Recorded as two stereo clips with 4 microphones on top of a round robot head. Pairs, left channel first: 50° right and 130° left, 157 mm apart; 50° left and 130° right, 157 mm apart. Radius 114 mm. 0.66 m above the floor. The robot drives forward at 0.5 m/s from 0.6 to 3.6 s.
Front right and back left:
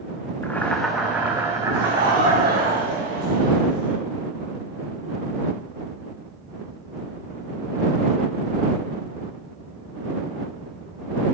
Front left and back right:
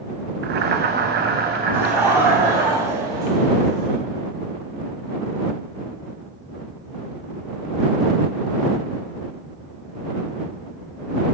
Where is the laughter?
155° left, 2.5 m; by 4.0 s 160° left, 3.5 m.